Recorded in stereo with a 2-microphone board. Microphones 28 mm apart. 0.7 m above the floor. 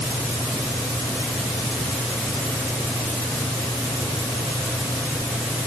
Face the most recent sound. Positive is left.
No sound to turn to.